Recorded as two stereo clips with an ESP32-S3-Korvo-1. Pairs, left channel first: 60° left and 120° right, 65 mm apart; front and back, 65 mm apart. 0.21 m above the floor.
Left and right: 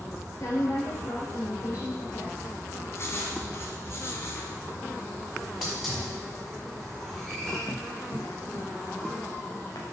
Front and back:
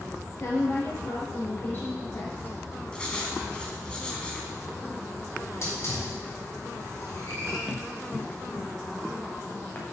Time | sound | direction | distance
0.4 | a woman speaking | 35° left | 3.5 m
2.9 | writing | 65° left | 1.4 m
5.4 | a hiss | 30° right | 3.5 m
7.7 | running footsteps | 75° left | 1.3 m